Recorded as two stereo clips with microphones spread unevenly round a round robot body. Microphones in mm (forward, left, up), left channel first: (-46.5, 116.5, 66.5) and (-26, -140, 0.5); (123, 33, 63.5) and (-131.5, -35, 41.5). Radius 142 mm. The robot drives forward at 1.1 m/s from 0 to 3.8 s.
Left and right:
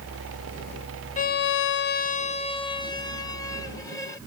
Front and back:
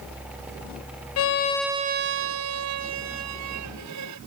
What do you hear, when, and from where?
1.2 s a violin: 25° left; by 4.2 s 175° left